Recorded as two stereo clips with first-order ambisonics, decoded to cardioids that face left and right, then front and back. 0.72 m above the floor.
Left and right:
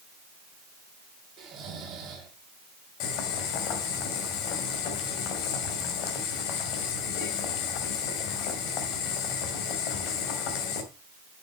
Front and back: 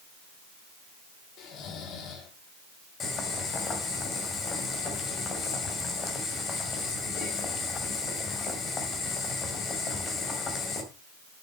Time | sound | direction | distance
1.4 | snoring | 35° right | 3 m
3.0 | boiling | 65° left | 2 m